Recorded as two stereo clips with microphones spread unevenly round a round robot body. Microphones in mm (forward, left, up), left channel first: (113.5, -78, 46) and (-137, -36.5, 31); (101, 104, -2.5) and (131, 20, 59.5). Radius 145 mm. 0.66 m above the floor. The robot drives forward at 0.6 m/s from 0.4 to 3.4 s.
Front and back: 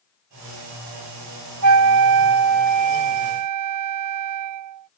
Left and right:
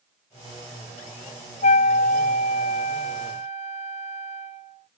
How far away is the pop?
No pop in this recording.